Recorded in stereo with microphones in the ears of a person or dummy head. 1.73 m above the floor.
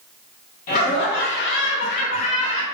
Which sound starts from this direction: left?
Laughter, at 0.7 s.